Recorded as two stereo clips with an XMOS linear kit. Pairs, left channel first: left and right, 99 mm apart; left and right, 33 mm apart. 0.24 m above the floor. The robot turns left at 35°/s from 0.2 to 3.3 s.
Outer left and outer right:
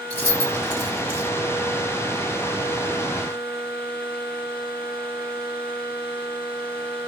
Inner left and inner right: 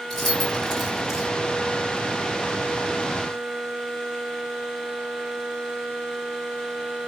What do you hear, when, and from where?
0.1 s keys jangling: 20° left (ahead or behind), 2 m; by 1.3 s 15° right (ahead or behind), 2 m